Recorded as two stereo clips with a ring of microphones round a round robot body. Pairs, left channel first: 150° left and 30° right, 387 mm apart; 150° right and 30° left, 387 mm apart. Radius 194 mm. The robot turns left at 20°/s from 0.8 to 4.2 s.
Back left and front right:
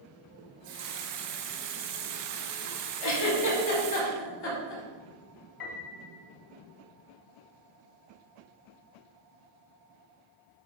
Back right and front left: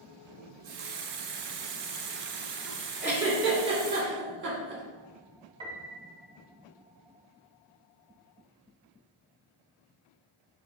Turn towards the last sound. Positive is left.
turn(degrees=110)